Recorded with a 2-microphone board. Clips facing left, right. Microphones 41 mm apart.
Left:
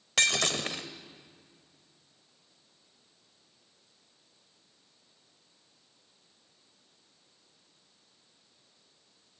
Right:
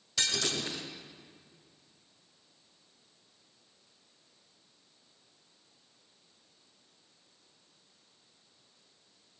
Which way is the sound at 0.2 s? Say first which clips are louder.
Left 5 dB; 65° left (ahead or behind).